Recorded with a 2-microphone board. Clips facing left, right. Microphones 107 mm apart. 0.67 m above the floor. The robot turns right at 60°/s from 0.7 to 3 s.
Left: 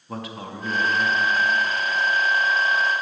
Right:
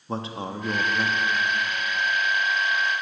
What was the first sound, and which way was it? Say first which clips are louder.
A man speaking: right 3 dB; 25° right (ahead or behind).